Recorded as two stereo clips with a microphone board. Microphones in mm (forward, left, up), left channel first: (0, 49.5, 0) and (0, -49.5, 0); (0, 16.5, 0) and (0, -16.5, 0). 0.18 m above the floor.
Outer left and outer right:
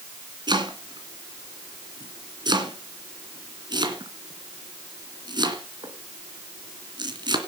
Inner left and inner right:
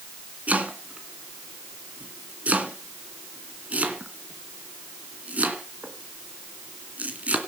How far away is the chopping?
About 2.5 m.